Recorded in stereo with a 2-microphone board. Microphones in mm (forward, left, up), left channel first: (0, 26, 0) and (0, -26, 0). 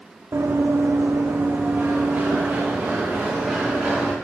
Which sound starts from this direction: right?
Running footsteps, at 0.3 s.